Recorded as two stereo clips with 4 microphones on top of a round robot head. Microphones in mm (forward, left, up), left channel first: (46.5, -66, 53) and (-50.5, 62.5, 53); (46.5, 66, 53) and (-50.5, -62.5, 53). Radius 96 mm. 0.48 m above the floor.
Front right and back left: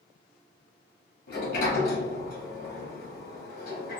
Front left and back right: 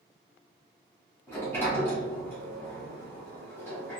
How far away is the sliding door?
About 1.2 m.